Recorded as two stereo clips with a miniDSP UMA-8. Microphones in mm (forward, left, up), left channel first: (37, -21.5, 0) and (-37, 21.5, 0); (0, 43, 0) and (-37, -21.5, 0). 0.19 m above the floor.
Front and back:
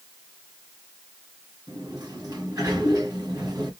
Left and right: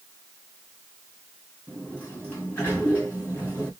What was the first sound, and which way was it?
A sliding door, 120° left.